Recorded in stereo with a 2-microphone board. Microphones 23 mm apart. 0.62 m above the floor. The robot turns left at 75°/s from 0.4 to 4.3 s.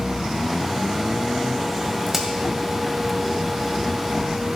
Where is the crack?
Centre (ahead or behind), 1.5 m; by 2.3 s 15° right (ahead or behind), 1.5 m.